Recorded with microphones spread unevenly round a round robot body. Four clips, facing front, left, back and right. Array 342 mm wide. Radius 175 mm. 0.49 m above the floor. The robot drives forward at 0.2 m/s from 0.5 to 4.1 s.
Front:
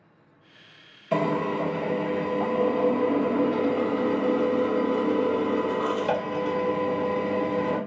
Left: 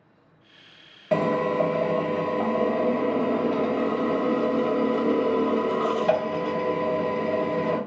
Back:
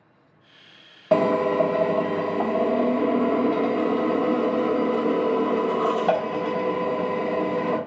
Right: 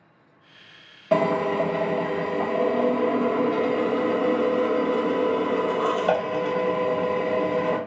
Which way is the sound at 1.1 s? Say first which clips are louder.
Right 1 dB, back 6 dB; 170° right.